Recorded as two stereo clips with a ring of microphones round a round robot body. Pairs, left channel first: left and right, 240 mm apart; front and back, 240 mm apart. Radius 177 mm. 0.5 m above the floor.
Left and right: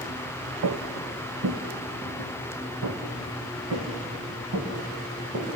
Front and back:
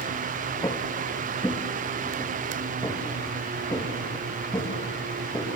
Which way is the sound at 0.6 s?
80° right.